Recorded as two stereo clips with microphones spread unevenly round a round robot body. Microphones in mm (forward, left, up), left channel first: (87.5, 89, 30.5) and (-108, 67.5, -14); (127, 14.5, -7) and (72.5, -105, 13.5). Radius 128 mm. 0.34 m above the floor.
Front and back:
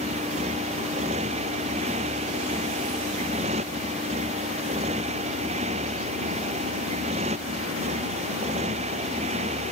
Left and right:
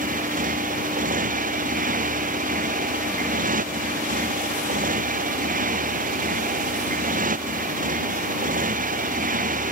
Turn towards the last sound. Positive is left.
turn(degrees=-105)